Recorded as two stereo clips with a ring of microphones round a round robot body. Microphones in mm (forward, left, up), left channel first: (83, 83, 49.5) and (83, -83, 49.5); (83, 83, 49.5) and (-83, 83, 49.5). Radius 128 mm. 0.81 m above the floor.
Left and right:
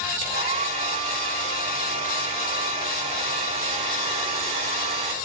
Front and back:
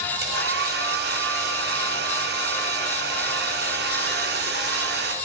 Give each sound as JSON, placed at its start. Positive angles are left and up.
{"t": 0.2, "sound": "a hair dryer", "azimuth_deg": -150, "distance_m": 4.0}